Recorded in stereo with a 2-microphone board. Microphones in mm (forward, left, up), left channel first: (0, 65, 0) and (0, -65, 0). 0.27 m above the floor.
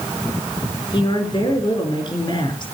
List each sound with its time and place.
0.9 s a woman speaking: 40° left (ahead or behind), 4.5 m